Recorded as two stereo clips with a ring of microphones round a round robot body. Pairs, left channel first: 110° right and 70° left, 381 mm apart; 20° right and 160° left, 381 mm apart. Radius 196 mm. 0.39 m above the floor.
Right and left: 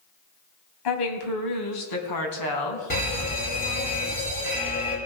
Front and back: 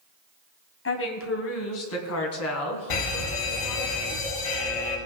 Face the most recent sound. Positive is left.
turn(degrees=-45)